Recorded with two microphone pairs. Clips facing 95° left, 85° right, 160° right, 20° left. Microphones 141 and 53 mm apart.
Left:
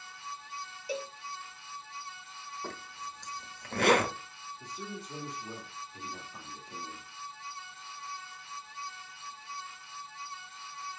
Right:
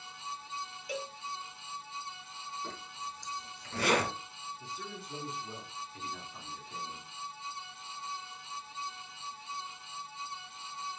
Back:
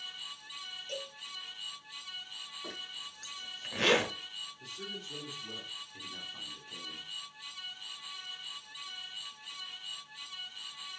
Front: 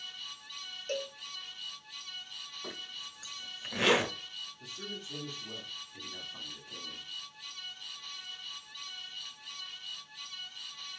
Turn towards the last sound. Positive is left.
turn(degrees=100)